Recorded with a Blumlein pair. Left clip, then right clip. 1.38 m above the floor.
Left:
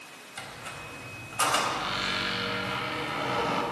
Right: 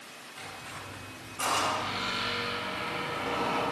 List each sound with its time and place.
0.4 s a squeak: 25° left, 4 m